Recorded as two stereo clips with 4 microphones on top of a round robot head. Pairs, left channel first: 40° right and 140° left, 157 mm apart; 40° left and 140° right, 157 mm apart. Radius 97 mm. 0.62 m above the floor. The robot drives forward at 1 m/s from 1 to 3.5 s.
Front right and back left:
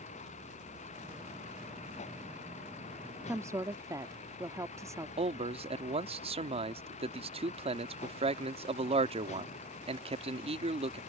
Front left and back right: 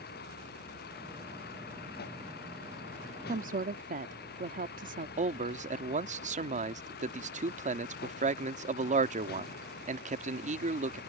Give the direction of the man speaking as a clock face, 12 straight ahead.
6 o'clock.